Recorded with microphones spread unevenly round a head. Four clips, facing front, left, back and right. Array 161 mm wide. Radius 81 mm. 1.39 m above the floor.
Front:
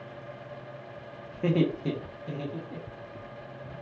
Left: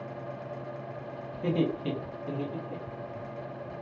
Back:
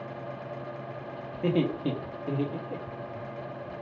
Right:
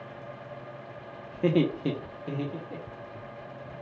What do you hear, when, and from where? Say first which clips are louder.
1.3 s laughter: right 4 dB, front 1 dB; 90° right, 0.8 m; by 3.2 s 165° right, 1.0 m